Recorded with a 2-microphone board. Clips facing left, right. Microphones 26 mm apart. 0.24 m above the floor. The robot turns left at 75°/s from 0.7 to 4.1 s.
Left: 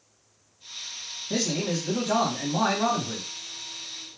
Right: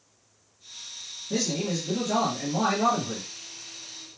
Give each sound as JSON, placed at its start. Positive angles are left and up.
{"t": 1.3, "sound": "a man speaking", "azimuth_deg": 115, "distance_m": 1.5}